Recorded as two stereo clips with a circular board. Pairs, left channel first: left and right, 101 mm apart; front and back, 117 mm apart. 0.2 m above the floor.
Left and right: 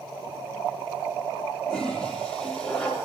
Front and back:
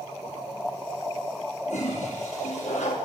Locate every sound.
1.7 s a toilet flushing: 10° left, 8 m